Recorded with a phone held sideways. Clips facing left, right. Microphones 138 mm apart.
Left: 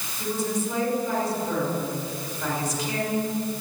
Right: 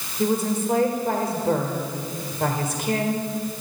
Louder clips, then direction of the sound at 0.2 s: Right 5 dB; 50° right (ahead or behind).